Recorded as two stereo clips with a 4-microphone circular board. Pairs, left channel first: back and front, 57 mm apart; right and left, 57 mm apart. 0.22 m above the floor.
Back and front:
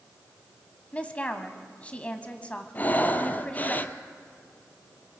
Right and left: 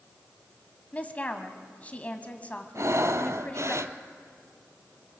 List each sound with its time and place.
0.9 s a woman speaking: 130° right, 1.5 m
2.8 s breathing: 120° left, 0.8 m